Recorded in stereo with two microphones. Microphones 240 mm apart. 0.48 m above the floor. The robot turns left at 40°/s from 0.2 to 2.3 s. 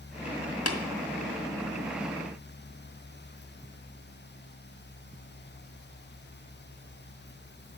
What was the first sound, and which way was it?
Tapping, 75° left (ahead or behind).